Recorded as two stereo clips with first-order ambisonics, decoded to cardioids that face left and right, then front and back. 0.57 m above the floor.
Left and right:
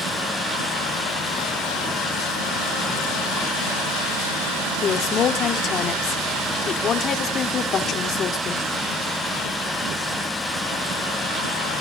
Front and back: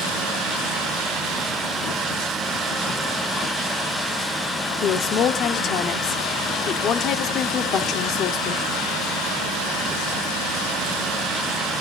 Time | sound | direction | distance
4.8 | a woman speaking | 40° left | 1.6 m